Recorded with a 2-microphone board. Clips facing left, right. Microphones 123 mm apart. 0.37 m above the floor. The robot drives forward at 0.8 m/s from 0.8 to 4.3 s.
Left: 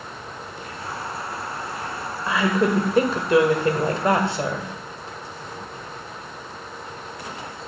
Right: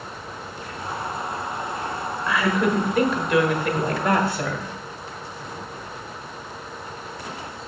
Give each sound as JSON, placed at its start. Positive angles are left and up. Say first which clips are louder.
{"t": 2.3, "sound": "a woman speaking", "louder": "left 1 dB", "side_deg": 30, "distance_m": 1.5}